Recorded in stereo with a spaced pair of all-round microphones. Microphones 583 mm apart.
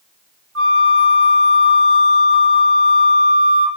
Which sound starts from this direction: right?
A flute, at 0.6 s.